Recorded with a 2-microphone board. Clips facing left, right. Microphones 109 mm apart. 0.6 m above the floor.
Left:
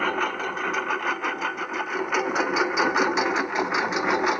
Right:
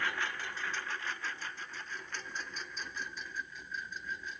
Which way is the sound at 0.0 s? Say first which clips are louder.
Left 12 dB; 60° left (ahead or behind).